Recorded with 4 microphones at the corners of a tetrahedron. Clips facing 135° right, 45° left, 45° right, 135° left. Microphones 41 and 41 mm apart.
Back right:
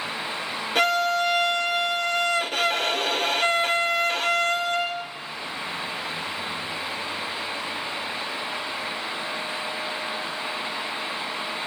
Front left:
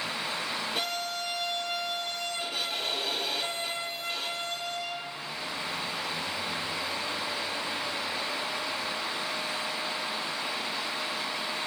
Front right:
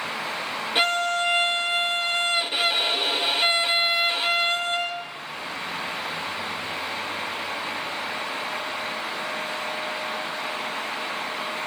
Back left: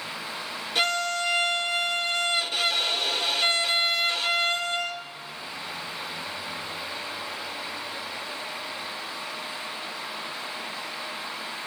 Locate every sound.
0.8 s a violin: 115° right, 1.2 m